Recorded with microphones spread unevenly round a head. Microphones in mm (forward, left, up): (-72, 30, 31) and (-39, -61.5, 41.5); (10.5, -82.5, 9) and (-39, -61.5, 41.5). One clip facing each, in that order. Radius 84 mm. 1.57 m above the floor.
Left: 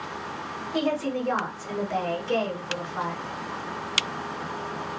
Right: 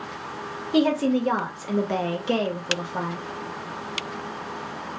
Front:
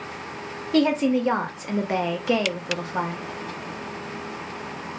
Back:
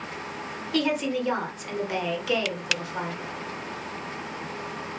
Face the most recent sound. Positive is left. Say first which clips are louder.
# right 6 dB, front 6 dB
turn(degrees=-60)